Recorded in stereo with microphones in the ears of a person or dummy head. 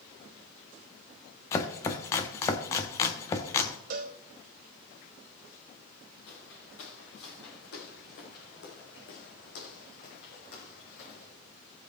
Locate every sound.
1.5 s chopping: 20° left (ahead or behind), 1.0 m
3.9 s a cowbell: 50° right (ahead or behind), 1.0 m
6.3 s footsteps: 70° left (ahead or behind), 5 m; by 11.3 s 40° left (ahead or behind), 2.5 m